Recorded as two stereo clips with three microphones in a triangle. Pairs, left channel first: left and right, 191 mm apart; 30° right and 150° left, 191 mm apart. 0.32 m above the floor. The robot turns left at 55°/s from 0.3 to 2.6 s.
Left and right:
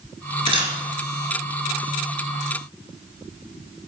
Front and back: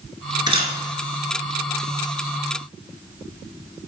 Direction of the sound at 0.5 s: 145° right.